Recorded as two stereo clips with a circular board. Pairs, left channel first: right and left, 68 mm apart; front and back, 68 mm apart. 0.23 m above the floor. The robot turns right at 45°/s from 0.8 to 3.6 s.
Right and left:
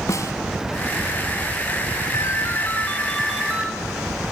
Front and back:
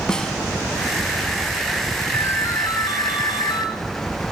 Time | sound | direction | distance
0.1 | a snare drum | 75° right | 1.4 m
2.1 | a ringtone | 50° right | 1.7 m